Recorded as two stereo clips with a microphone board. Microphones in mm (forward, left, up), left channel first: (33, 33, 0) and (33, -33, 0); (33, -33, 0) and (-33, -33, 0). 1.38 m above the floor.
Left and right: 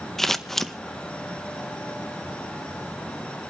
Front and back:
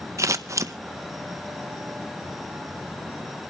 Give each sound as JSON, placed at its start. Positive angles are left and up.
{"t": 0.2, "sound": "scissors", "azimuth_deg": 175, "distance_m": 0.6}